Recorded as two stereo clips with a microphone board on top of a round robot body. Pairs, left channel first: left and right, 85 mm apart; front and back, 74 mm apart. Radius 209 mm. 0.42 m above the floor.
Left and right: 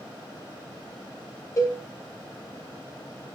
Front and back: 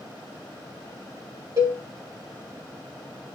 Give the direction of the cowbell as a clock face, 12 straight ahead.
7 o'clock.